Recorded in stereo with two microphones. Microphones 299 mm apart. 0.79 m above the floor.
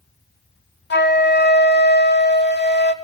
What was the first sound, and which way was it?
A flute, 35° left (ahead or behind).